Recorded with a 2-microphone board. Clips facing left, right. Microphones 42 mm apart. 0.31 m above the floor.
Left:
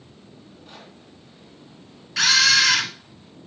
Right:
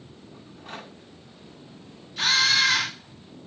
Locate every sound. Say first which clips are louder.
0.3 s a rattle: right 5 dB; 60° right (ahead or behind), 3 m
2.2 s a camera shutter: left 4 dB; 80° left, 2.0 m